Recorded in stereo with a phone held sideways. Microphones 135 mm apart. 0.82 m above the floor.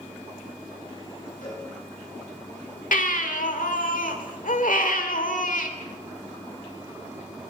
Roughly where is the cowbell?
Left.